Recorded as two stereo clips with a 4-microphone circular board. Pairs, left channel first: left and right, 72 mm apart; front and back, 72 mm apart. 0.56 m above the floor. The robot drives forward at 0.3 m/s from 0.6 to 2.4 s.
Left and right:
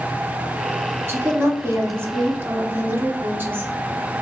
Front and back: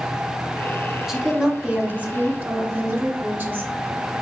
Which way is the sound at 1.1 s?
100° right.